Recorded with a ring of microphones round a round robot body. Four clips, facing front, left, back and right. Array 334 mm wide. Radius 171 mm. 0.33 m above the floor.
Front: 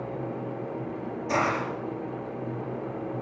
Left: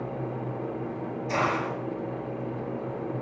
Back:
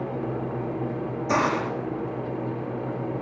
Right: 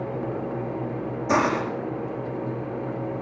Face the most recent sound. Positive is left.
turn(degrees=-115)